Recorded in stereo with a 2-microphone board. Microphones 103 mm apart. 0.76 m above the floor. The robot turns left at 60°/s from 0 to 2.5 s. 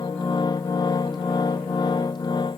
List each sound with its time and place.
Only background noise.